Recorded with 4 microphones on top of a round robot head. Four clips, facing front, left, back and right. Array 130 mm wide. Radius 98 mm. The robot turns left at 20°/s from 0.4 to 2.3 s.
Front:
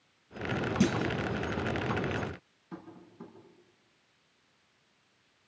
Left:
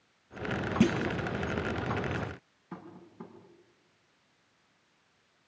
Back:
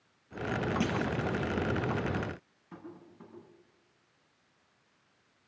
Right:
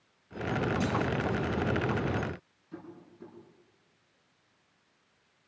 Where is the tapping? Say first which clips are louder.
Even, front 1 dB; 75° left, 7.5 m.